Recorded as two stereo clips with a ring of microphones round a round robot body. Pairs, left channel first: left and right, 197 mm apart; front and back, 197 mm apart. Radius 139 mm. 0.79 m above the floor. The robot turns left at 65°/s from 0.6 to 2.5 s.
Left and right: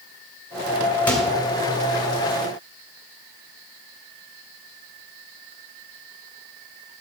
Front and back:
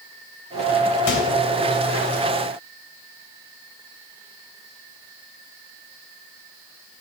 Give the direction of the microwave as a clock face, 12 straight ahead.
12 o'clock.